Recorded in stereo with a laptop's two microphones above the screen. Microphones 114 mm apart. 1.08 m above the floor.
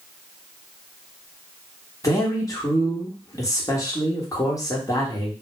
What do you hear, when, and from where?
2.0 s a man speaking: 30° left (ahead or behind), 1.1 m